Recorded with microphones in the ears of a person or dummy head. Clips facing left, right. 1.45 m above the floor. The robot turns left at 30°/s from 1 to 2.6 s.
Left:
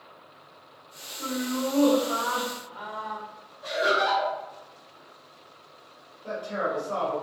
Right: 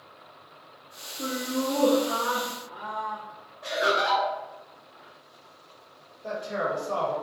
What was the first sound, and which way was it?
Laughter, 70° right.